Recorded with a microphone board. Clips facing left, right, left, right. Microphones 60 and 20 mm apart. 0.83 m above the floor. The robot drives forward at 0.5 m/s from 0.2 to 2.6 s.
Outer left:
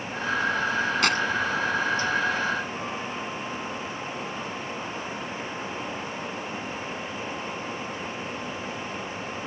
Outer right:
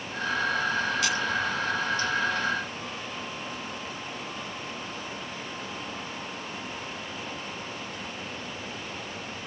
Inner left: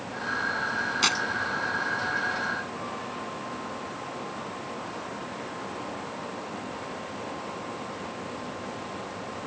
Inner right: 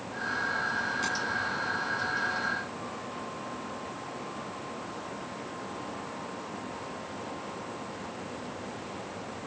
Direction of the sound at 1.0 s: 55° left (ahead or behind).